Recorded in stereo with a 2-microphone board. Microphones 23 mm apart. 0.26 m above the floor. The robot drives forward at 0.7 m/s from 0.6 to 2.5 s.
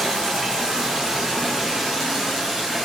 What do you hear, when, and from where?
0.0 s running water: 45° right (ahead or behind), 3 m; by 2.9 s 30° right (ahead or behind), 4 m